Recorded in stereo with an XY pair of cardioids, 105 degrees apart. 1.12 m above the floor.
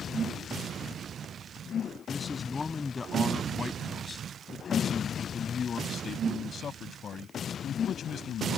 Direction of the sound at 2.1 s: 25° left.